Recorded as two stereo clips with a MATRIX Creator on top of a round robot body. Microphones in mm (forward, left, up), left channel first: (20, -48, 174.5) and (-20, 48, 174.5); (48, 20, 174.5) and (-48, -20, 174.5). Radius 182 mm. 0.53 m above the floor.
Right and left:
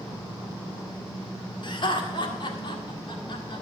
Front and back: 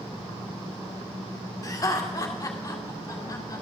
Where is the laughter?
35° right, 2 m.